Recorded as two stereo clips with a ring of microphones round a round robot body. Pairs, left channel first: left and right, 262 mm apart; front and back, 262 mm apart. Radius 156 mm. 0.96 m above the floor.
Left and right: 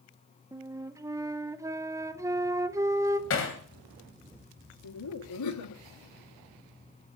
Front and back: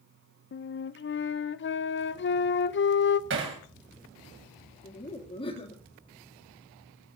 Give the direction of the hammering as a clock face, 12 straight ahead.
8 o'clock.